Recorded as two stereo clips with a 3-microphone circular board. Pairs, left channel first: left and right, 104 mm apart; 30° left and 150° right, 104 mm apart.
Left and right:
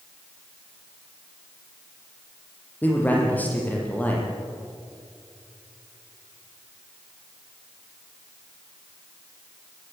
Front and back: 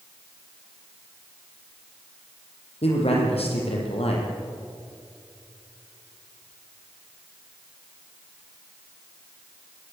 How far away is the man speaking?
About 7 m.